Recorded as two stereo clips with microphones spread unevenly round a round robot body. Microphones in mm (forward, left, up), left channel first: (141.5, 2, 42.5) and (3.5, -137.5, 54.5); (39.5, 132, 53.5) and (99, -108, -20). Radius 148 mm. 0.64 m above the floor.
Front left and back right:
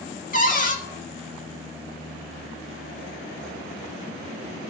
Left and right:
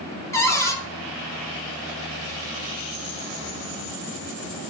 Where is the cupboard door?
15° left, 1.7 m.